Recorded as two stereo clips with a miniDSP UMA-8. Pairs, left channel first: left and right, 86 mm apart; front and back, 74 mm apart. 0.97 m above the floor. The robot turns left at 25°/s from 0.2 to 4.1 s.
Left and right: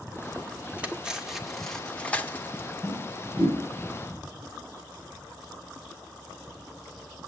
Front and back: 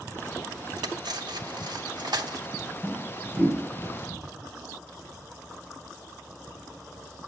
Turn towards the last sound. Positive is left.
turn(degrees=-135)